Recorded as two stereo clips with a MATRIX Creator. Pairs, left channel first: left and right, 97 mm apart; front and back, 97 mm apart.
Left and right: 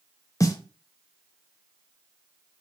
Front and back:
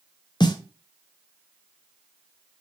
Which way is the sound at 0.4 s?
35° left.